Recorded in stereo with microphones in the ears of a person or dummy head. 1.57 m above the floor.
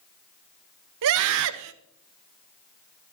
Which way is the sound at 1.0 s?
70° right (ahead or behind).